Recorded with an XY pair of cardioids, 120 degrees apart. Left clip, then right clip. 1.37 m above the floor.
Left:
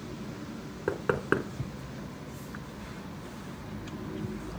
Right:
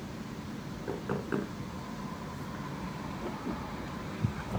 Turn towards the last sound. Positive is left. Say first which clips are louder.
# left 7 dB
turn(degrees=70)